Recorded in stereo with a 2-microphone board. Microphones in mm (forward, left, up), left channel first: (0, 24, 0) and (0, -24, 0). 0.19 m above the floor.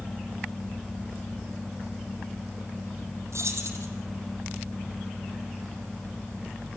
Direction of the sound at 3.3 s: 75° right (ahead or behind).